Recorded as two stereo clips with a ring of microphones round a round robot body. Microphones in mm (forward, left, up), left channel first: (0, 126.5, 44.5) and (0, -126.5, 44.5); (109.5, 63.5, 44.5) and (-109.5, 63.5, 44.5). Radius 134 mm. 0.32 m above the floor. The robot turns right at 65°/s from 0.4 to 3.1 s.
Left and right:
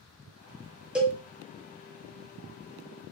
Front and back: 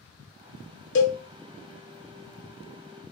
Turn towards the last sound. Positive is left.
turn(degrees=135)